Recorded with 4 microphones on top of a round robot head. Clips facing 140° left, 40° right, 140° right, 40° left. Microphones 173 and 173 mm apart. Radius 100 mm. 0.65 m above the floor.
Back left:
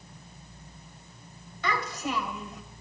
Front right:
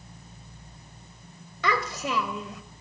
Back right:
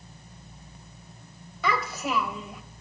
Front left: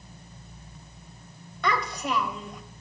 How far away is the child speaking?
About 3 m.